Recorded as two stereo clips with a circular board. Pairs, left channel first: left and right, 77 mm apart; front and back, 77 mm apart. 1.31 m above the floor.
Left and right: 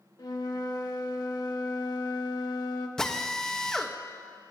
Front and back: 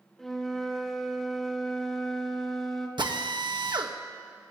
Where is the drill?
170° left, 1.2 m.